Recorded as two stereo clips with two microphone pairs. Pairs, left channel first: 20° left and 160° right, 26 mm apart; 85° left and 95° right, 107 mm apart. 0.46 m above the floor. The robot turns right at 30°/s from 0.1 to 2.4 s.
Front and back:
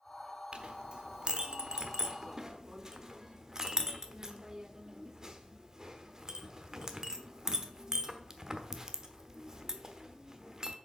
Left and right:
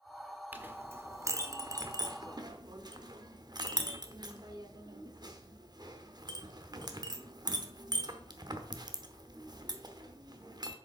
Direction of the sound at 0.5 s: 160° right.